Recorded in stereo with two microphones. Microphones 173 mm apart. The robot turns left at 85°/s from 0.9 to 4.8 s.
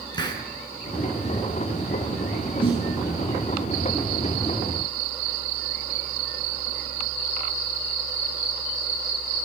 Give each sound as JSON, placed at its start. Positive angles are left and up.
{"t": 0.1, "sound": "a hiss", "side_deg": 25, "distance_m": 4.5}
{"t": 2.6, "sound": "a snare drum", "side_deg": 30, "distance_m": 6.5}